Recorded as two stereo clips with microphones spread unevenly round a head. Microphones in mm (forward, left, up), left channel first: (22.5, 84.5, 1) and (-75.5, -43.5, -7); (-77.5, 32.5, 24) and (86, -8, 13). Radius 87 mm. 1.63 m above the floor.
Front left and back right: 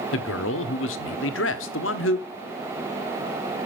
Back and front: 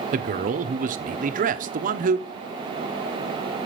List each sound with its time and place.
0.1 s a man speaking: 30° left, 1.0 m